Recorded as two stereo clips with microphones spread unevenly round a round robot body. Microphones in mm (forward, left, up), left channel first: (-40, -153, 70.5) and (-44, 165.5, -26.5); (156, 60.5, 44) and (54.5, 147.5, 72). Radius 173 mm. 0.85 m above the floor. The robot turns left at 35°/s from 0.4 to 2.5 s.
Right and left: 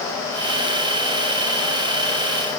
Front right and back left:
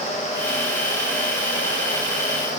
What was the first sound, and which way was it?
Only background noise.